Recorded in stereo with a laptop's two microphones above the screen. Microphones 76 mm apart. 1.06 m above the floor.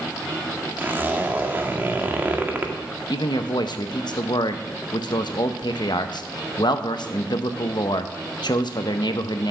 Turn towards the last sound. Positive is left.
turn(degrees=70)  # may be behind; listen again after turning